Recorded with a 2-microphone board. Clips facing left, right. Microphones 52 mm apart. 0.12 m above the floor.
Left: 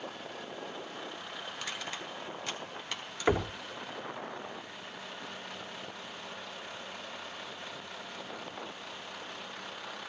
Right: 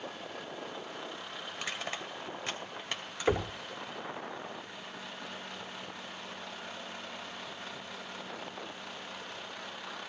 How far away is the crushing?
About 2 m.